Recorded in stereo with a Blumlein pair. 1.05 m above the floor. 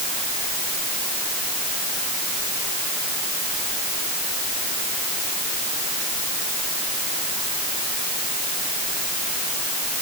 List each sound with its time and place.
Only background noise.